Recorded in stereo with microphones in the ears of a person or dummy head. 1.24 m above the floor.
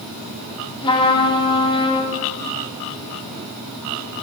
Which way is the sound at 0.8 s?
30° left (ahead or behind).